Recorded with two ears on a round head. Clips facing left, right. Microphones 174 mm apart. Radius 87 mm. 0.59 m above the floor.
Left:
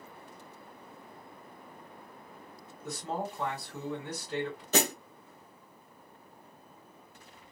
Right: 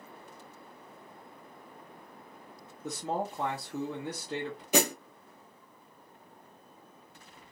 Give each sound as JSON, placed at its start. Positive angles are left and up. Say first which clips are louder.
{"t": 2.8, "sound": "a man speaking", "louder": "right 2 dB", "side_deg": -30, "distance_m": 1.3}
{"t": 4.7, "sound": "a snare drum", "louder": "right 2 dB", "side_deg": -10, "distance_m": 1.1}